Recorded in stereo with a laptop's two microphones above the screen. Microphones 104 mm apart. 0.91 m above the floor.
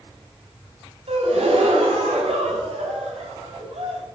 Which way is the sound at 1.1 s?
85° right.